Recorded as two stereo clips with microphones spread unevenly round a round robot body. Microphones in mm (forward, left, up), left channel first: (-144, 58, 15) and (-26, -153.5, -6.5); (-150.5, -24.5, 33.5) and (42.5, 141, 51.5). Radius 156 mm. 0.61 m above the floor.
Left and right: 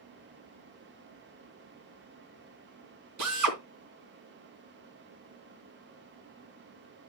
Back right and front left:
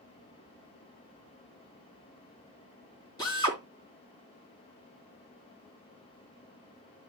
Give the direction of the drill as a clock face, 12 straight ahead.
2 o'clock.